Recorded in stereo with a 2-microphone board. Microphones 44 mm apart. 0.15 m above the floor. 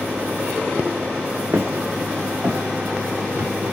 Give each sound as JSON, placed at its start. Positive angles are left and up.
{"t": 1.5, "sound": "footsteps", "side_deg": -50, "distance_m": 1.2}